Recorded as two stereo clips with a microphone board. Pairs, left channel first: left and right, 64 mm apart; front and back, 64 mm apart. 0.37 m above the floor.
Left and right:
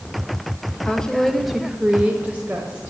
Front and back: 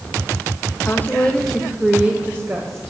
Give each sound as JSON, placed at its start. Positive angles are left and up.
{"t": 0.8, "sound": "a woman speaking", "azimuth_deg": 25, "distance_m": 1.3}